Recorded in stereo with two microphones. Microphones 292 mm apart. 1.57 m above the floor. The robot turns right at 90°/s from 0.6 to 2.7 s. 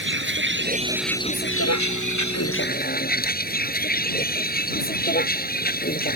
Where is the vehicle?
40° right; by 6.2 s 150° left.